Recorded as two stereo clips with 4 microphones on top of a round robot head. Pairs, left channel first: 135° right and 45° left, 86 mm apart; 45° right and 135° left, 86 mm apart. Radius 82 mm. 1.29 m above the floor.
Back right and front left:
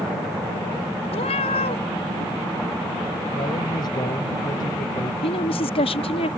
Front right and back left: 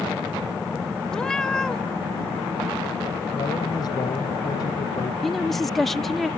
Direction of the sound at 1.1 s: 130° right.